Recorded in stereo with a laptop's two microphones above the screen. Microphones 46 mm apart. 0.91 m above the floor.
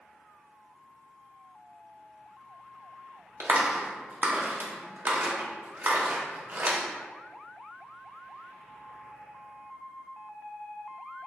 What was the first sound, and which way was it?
A clap, 50° right (ahead or behind).